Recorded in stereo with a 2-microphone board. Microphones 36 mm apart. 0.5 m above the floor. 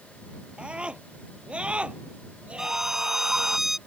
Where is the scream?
35° right (ahead or behind); by 3.6 s 40° right (ahead or behind).